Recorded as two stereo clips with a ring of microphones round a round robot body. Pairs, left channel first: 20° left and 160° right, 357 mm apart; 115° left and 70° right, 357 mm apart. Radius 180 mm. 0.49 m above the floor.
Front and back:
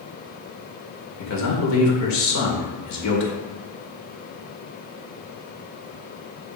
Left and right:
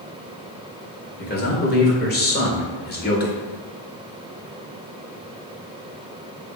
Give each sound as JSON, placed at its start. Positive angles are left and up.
{"t": 1.2, "sound": "a man speaking", "azimuth_deg": 55, "distance_m": 2.0}